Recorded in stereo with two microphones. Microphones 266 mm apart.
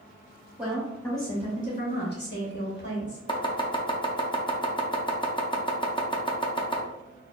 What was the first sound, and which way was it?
A woman speaking, 5° right (ahead or behind).